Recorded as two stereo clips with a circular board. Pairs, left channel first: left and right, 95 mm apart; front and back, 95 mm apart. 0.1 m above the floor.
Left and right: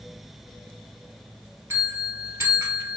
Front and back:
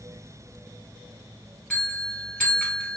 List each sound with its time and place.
1.7 s a bell: 65° right, 1.3 m